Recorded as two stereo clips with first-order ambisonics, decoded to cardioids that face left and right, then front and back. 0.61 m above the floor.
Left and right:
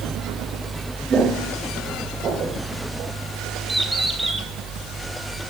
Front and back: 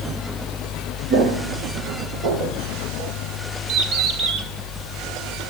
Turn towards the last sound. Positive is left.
turn(degrees=-175)